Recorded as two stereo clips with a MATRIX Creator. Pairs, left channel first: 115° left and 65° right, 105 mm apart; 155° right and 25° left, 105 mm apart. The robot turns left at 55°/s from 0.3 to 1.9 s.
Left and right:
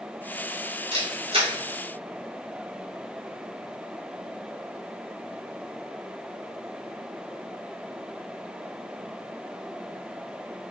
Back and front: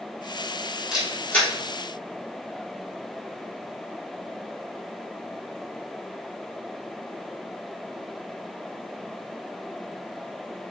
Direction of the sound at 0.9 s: 60° right.